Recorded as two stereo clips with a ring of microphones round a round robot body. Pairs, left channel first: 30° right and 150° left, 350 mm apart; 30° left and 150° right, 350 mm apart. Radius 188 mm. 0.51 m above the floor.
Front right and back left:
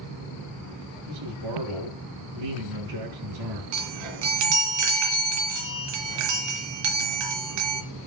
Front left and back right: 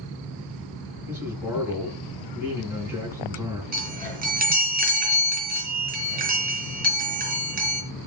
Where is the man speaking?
125° left, 7 m.